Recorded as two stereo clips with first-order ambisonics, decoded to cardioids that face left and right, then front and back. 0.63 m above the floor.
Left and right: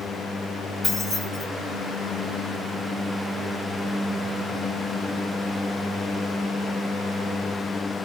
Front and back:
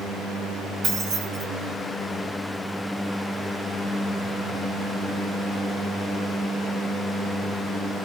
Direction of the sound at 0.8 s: 165° left.